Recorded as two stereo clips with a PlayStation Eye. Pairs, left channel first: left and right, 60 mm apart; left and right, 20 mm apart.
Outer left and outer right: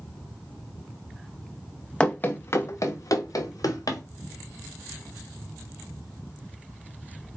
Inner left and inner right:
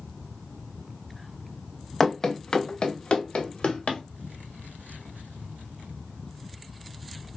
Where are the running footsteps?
15° left (ahead or behind), 0.7 m; by 4.0 s 85° left, 1.5 m.